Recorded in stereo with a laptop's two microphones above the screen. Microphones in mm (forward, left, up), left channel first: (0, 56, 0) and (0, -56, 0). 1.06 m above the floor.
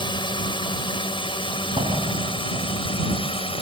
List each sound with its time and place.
0.0 s a drone: 45° left (ahead or behind); by 3.6 s 55° left (ahead or behind)
1.8 s a door slam: 60° right (ahead or behind)